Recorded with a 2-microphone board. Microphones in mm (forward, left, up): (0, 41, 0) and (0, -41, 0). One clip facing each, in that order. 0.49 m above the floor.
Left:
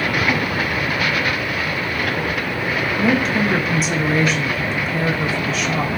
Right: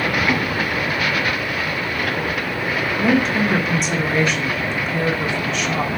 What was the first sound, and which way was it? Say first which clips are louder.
A woman speaking: right 1 dB; centre (ahead or behind).